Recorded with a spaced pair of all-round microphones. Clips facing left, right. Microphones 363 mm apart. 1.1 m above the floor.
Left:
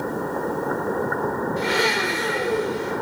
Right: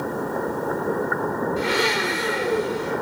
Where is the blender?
15° right (ahead or behind), 2.5 m.